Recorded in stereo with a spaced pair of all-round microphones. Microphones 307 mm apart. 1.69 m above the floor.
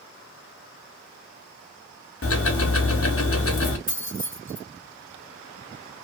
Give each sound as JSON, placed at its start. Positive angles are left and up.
{"t": 2.2, "sound": "ticking", "side_deg": 45, "distance_m": 0.5}
{"t": 3.9, "sound": "keys jangling", "side_deg": -25, "distance_m": 1.6}